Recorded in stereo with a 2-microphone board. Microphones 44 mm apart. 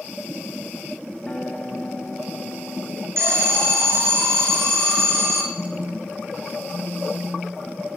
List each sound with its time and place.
1.3 s a guitar: 20° left (ahead or behind), 1.5 m
3.2 s an alarm: 65° right (ahead or behind), 4 m
5.5 s a phone buzzing: 65° right (ahead or behind), 7.5 m